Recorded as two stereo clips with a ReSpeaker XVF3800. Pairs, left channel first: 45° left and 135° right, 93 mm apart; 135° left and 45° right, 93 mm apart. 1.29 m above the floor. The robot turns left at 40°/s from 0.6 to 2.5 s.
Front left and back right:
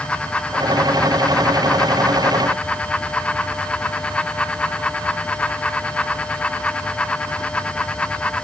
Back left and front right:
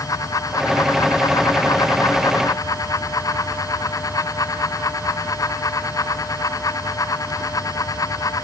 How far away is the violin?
I don't hear a violin.